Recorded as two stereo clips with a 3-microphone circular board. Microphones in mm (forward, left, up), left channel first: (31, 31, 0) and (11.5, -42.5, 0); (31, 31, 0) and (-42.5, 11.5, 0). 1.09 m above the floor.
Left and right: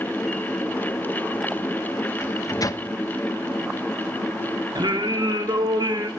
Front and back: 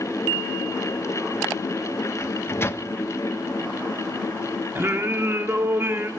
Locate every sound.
2.2 s a microwave: 60° left, 0.6 m
4.8 s singing: 110° right, 1.2 m